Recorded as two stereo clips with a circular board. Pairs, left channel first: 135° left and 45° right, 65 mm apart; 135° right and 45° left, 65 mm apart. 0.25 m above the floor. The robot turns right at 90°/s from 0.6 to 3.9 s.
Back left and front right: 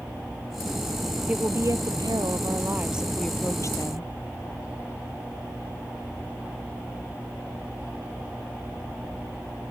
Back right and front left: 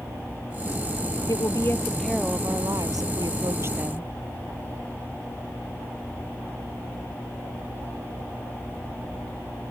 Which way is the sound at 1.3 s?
120° right.